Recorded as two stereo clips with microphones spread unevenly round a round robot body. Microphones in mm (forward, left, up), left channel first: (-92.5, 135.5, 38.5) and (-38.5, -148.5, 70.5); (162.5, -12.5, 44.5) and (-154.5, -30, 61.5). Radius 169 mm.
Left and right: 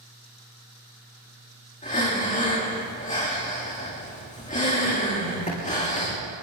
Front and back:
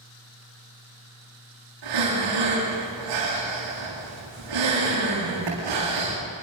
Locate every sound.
1.8 s breathing: 165° left, 8.5 m